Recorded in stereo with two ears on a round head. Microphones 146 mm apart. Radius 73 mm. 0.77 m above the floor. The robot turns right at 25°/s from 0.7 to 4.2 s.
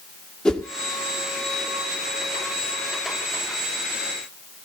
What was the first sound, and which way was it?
A whoosh, 5° left (ahead or behind).